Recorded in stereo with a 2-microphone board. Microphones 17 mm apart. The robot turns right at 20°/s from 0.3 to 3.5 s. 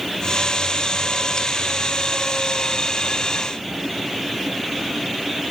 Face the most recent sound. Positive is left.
No sound to turn to.